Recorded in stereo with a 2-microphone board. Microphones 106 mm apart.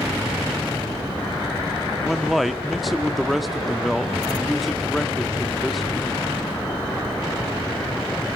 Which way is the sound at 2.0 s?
Centre (ahead or behind).